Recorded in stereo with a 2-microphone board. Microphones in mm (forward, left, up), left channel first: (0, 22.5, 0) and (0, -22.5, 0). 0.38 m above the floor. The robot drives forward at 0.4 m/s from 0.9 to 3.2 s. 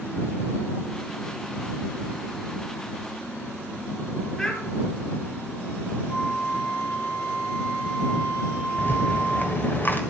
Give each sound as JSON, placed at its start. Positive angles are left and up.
{"t": 4.4, "sound": "a child speaking", "side_deg": 10, "distance_m": 3.5}
{"t": 6.1, "sound": "a flute", "side_deg": 25, "distance_m": 3.5}
{"t": 8.8, "sound": "a rattle", "side_deg": 40, "distance_m": 1.6}